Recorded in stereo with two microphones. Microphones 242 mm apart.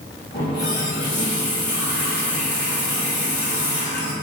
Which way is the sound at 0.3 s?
45° left (ahead or behind).